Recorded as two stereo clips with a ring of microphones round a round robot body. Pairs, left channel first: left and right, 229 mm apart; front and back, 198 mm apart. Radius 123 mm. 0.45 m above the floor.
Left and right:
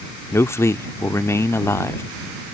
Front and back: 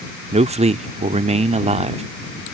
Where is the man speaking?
160° left.